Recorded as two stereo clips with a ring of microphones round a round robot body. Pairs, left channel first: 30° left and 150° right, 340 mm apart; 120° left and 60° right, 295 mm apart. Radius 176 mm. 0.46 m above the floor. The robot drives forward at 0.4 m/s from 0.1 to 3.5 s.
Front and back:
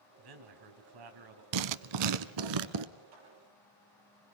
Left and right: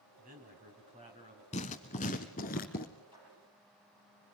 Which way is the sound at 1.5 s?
165° right.